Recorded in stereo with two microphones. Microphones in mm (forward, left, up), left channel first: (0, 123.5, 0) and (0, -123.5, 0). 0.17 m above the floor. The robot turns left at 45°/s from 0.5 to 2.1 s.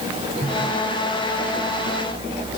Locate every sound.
Only background noise.